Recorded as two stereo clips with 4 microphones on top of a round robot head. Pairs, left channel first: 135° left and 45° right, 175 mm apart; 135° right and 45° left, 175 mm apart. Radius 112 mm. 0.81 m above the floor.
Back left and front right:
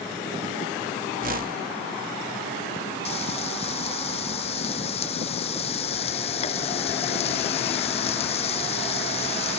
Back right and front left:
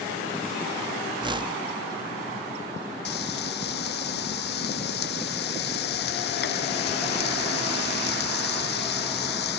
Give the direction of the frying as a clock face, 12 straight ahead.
6 o'clock.